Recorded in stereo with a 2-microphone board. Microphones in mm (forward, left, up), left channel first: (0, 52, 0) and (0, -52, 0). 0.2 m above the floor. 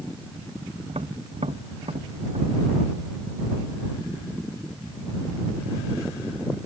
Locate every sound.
0.9 s tapping: 80° right